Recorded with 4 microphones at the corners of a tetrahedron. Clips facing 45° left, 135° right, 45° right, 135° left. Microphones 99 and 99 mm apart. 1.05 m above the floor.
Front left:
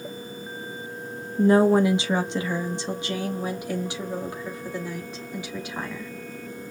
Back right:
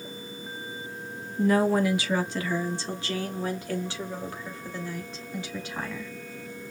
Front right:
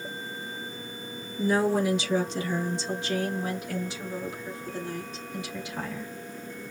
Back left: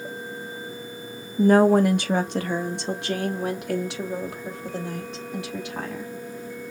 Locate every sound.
1.4 s a woman speaking: 105° left, 0.9 m; by 6.1 s 120° left, 3 m